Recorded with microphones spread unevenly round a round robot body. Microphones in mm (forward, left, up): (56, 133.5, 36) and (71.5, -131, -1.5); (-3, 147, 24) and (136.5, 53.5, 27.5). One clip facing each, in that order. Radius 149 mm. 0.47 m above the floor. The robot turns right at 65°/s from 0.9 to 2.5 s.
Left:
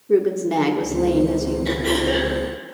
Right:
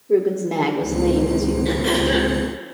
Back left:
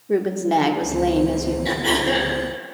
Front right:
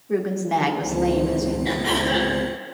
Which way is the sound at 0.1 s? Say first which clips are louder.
Even, back left 3 dB; 155° left.